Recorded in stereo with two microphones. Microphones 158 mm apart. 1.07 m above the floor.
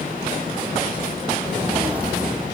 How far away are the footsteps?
About 2 m.